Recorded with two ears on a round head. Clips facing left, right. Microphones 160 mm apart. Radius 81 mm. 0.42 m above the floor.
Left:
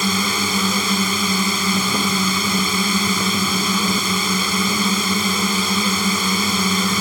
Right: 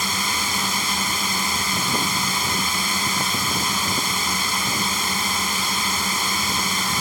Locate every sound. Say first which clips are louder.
0.0 s a drone: left 6 dB; 65° left (ahead or behind)